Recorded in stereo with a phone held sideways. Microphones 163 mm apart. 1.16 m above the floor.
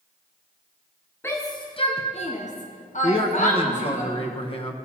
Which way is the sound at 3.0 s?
40° left (ahead or behind).